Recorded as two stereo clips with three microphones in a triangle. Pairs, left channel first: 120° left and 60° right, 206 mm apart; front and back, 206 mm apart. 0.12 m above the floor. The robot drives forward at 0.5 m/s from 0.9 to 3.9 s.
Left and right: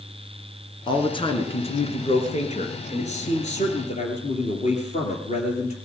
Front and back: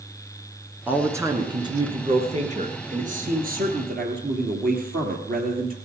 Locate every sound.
0.9 s a man speaking: 115° left, 1.4 m; by 5.8 s 160° left, 2 m